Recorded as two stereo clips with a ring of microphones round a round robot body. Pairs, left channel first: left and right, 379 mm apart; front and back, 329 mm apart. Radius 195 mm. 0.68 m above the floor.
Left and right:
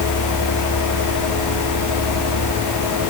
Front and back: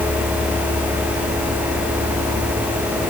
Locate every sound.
Only background noise.